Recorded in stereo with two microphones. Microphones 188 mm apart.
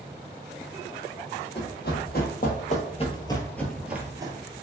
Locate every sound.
1.6 s running footsteps: 60° left (ahead or behind), 1.3 m; by 4.3 s 25° right (ahead or behind), 0.7 m